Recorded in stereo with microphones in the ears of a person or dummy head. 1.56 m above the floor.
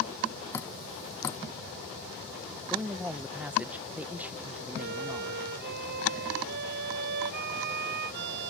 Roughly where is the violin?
Right.